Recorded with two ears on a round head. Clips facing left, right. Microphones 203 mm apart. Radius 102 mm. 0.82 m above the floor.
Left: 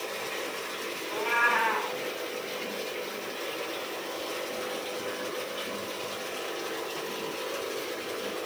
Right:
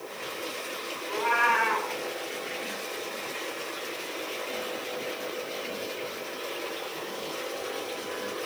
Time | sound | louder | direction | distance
1.1 | a cat meowing | right 2 dB | 60° right (ahead or behind) | 1.9 m